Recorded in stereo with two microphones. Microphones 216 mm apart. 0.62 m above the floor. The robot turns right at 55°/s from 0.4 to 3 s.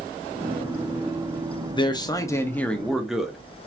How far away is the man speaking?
About 0.6 m.